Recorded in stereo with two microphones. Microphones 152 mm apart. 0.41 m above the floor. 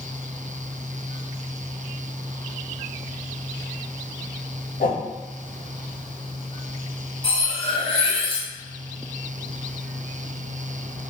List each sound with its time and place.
4.8 s a whoosh: 75° left (ahead or behind), 0.8 m
7.2 s cutlery clinking: 35° left (ahead or behind), 0.8 m